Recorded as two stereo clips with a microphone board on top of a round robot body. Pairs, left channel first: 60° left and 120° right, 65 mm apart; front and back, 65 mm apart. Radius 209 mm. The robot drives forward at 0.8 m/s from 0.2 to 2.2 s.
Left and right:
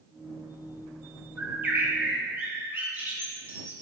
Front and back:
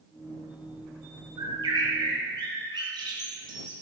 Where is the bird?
175° left, 1.5 m.